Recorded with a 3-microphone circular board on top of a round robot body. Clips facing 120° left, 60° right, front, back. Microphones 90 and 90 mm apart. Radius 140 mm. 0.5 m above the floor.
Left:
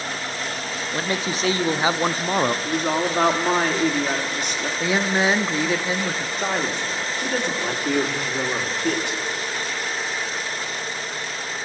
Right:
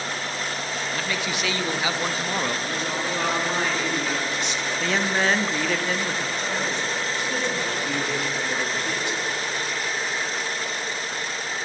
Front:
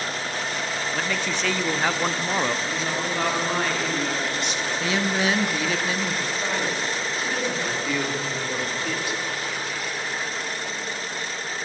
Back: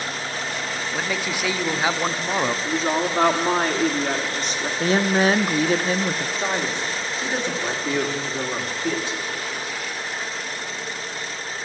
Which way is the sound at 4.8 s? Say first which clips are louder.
Left 3 dB, back 6 dB; 170° right.